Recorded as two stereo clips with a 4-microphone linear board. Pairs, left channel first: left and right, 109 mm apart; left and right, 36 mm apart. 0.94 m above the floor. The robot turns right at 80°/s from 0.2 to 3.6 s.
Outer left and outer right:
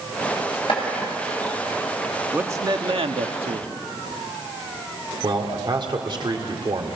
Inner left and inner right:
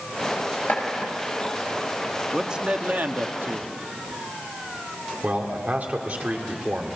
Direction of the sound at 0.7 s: 55° left (ahead or behind).